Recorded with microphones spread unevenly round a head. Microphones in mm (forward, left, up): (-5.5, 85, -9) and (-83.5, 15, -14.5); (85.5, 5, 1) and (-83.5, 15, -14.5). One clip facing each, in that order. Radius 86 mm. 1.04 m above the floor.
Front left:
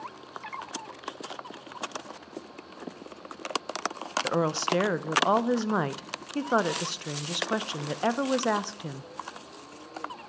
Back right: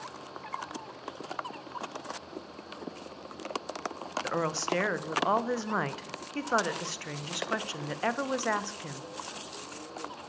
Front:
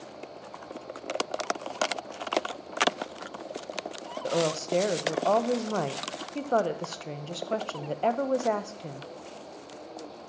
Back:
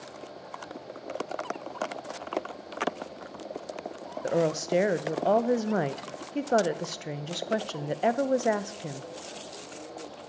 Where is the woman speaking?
110° left, 0.5 m.